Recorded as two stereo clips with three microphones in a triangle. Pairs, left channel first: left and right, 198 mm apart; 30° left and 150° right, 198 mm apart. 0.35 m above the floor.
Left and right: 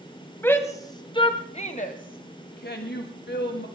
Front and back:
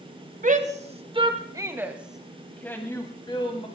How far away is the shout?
About 1.7 m.